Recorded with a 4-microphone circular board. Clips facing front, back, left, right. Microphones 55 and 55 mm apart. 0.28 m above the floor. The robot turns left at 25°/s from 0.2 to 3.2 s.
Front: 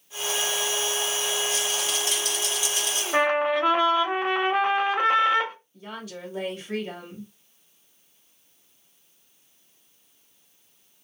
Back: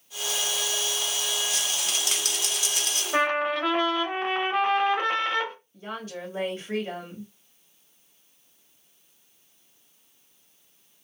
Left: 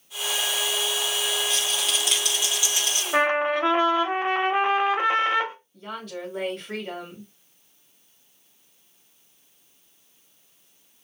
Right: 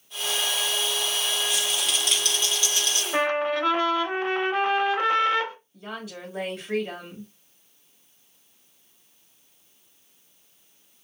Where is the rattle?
170° right, 1.0 m; by 3.0 s 155° left, 1.0 m.